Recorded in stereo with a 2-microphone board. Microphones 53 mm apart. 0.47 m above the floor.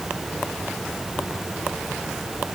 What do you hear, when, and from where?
Only background noise.